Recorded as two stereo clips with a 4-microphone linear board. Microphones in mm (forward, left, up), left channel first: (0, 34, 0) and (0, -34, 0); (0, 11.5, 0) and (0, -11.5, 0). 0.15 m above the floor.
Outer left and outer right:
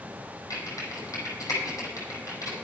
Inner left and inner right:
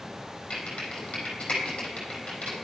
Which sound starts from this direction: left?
Typing on a keyboard, at 0.5 s.